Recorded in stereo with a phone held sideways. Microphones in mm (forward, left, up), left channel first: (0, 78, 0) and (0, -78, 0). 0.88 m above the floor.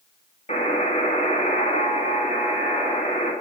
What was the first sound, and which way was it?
A buzzer, 45° left (ahead or behind).